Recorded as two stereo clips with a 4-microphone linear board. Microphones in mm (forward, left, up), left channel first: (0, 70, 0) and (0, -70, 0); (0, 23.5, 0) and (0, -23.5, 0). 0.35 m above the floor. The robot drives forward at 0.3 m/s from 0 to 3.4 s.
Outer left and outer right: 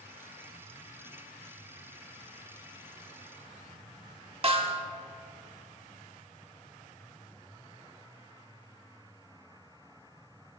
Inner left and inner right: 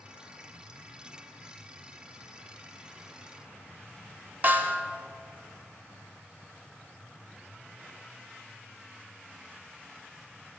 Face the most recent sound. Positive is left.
turn(degrees=-40)  # may be behind; listen again after turning